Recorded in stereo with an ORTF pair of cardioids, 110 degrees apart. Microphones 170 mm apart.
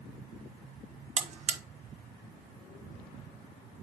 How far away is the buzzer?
About 0.9 m.